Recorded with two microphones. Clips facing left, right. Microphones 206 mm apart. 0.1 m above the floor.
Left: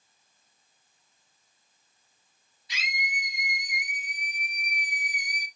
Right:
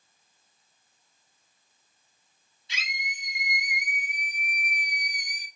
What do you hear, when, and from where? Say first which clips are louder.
2.7 s a scream: left 3 dB; 25° right (ahead or behind), 2 m; by 5.5 s 10° left (ahead or behind), 1.5 m